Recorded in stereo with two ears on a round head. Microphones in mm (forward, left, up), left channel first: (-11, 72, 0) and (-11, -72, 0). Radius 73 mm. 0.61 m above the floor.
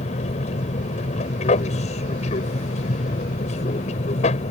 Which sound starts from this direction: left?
An aircraft, at 0.0 s.